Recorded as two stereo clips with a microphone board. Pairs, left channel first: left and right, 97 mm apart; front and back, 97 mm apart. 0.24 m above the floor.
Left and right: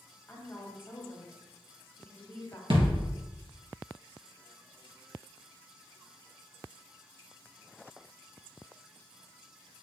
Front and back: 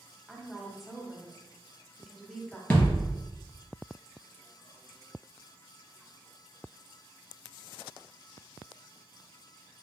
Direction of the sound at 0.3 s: 90° left.